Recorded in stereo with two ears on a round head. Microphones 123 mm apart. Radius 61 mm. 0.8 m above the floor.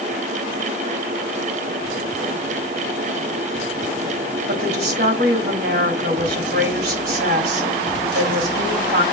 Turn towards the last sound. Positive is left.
turn(degrees=-75)  # may be behind; listen again after turning